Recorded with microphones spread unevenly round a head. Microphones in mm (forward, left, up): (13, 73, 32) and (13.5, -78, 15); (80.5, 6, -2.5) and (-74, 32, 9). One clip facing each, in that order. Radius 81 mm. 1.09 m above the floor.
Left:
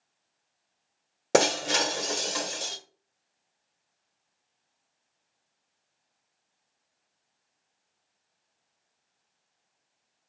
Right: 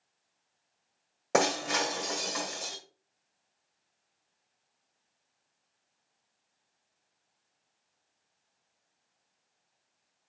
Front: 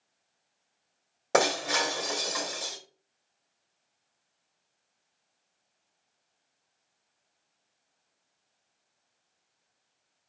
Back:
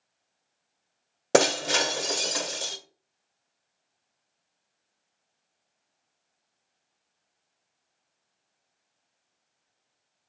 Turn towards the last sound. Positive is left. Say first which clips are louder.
# left 4 dB, back 4 dB
turn(degrees=130)